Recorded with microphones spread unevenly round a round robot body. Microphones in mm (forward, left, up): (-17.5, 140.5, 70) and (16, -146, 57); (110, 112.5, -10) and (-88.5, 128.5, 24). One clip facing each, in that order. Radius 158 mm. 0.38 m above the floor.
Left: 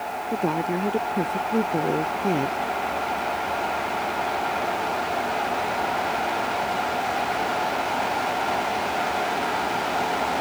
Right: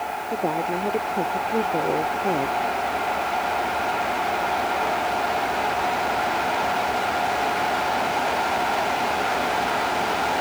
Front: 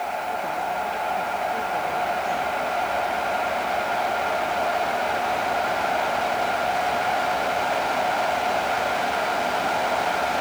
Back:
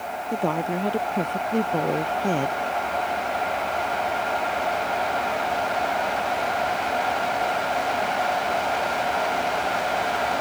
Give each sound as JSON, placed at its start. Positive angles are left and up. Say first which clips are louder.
{"t": 0.3, "sound": "a woman speaking", "louder": "left 1 dB, back 9 dB", "azimuth_deg": 165}